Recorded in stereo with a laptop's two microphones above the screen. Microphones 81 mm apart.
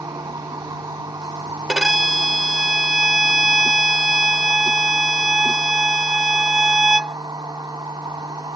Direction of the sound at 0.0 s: 55° right (ahead or behind).